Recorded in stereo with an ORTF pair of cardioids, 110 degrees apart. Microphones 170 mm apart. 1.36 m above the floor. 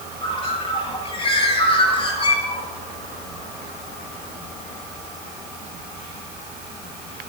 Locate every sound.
0.2 s a bird: 35° left, 6.5 m